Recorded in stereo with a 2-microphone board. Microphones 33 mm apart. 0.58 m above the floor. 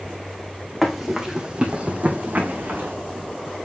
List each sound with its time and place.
0.8 s running footsteps: centre (ahead or behind), 2 m; by 2.9 s 75° right (ahead or behind), 2.5 m